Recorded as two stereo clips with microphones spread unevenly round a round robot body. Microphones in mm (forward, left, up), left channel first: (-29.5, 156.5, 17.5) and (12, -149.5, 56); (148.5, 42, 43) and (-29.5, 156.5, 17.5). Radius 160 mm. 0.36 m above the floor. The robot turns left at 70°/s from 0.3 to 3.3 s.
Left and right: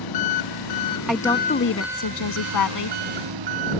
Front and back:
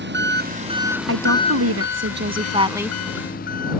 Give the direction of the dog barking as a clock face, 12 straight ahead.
No dog barking in this recording.